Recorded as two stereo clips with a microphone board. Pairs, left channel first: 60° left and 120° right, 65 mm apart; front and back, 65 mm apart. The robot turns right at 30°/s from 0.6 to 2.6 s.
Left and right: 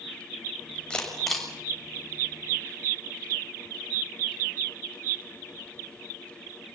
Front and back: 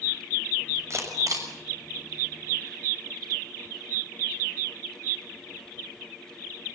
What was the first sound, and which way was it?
A camera shutter, 135° left.